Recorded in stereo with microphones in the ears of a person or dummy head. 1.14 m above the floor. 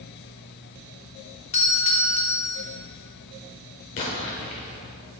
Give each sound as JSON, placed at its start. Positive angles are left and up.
{"t": 1.5, "sound": "a doorbell", "side_deg": 35, "distance_m": 0.7}
{"t": 4.0, "sound": "an explosion", "side_deg": 40, "distance_m": 1.0}